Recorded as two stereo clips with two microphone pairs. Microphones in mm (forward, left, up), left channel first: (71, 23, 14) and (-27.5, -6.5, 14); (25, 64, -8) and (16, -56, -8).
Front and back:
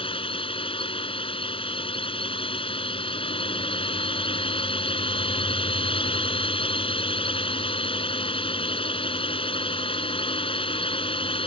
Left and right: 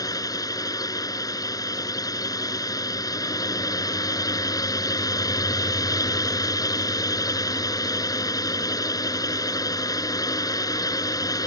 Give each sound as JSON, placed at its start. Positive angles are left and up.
{"t": 0.0, "sound": "a drone", "azimuth_deg": 30}